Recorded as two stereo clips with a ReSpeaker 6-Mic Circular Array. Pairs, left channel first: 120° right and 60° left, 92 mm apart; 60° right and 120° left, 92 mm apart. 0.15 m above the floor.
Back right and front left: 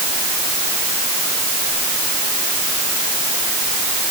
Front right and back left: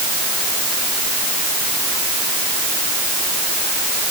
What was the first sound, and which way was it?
Only background noise.